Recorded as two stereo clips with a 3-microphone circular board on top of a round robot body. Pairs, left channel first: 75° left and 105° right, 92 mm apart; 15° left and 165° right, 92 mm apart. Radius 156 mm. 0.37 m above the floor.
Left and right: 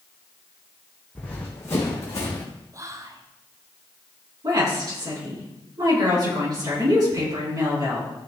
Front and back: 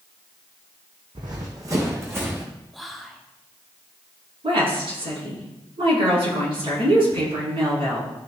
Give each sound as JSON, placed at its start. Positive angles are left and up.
{"t": 1.1, "sound": "running footsteps", "azimuth_deg": 155, "distance_m": 1.7}
{"t": 2.7, "sound": "whispering", "azimuth_deg": -75, "distance_m": 0.9}
{"t": 4.4, "sound": "a woman speaking", "azimuth_deg": -150, "distance_m": 5.5}